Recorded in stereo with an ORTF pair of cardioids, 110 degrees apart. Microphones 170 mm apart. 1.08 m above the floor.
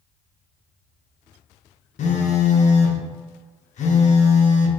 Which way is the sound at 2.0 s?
45° left.